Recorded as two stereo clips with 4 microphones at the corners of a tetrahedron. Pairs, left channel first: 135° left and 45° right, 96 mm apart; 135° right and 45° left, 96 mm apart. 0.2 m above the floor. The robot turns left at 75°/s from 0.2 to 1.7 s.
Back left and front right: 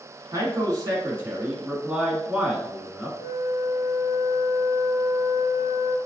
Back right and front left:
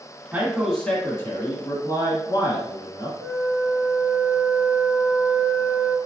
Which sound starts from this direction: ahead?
A man speaking, at 0.3 s.